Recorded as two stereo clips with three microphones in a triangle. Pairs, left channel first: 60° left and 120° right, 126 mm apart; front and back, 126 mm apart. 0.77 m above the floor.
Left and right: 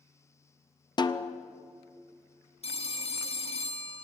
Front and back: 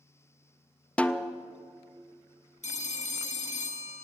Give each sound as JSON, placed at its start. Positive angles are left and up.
{"t": 1.0, "sound": "a snare drum", "azimuth_deg": 75, "distance_m": 0.5}
{"t": 2.6, "sound": "a phone ringing", "azimuth_deg": 20, "distance_m": 0.9}